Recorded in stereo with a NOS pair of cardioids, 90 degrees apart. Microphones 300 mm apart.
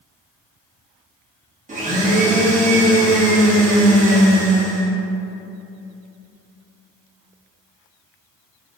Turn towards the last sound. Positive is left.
turn(degrees=-25)